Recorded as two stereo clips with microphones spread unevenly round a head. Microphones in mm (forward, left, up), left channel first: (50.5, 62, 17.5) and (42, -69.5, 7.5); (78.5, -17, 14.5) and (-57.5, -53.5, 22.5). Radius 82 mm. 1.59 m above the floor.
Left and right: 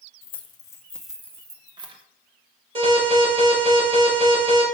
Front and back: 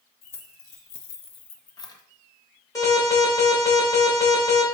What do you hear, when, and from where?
0.2 s keys jangling: 65° left, 0.8 m; by 2.0 s 50° right, 1.0 m
2.8 s an alarm: 50° right, 3.5 m